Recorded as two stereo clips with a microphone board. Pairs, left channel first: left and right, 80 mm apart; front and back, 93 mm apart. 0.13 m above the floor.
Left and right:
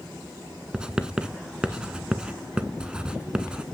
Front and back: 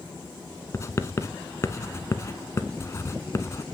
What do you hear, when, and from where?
0.7 s writing: 20° right, 0.5 m